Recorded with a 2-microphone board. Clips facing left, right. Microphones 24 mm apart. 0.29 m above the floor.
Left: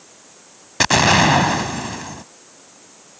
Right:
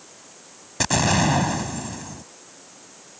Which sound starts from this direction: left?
An explosion, at 0.8 s.